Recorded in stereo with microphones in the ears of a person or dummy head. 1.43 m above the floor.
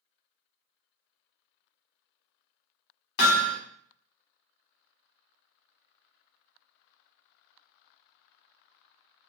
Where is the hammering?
60° left (ahead or behind), 1.2 m.